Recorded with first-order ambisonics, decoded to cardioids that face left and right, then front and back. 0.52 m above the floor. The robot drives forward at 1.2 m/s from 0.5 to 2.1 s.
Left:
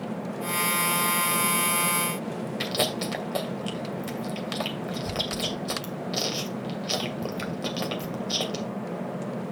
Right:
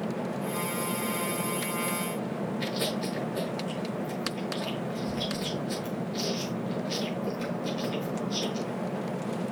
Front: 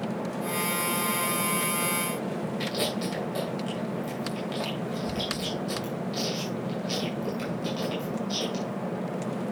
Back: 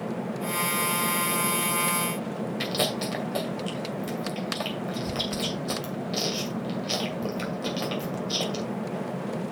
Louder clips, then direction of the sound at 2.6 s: Left 6 dB, back 3 dB; 115° left.